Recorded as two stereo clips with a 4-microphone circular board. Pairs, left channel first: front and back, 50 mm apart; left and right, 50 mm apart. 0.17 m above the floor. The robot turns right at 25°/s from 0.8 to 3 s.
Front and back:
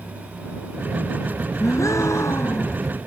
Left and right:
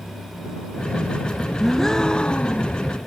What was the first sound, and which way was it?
A gasp, 5° left.